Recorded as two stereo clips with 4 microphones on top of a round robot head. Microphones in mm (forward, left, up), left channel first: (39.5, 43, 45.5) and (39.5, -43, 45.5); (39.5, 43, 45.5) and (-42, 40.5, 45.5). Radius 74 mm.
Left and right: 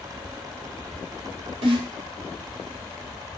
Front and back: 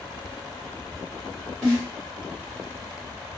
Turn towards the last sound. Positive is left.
turn(degrees=-90)